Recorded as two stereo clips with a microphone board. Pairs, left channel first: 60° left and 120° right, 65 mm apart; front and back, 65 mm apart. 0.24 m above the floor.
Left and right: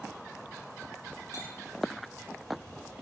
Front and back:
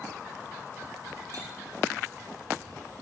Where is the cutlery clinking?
140° right, 3.5 m.